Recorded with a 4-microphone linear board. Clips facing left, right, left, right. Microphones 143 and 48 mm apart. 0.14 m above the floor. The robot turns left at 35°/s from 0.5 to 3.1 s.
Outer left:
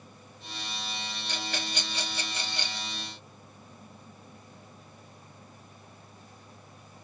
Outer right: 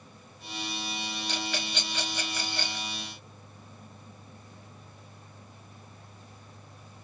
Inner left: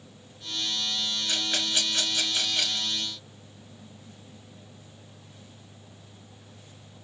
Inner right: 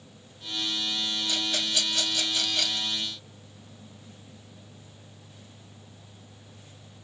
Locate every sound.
1.3 s a rattle: 45° left (ahead or behind), 1.1 m; by 2.9 s 10° left (ahead or behind), 1.1 m